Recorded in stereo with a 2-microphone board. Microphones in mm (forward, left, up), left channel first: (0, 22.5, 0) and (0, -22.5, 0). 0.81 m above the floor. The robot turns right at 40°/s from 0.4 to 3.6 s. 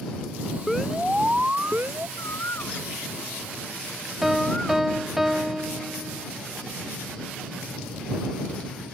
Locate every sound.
0.7 s an alarm: straight behind; by 2.1 s 125° right
2.2 s a bird: 75° left (ahead or behind); by 4.9 s 15° left (ahead or behind)
4.2 s a piano: 10° right (ahead or behind)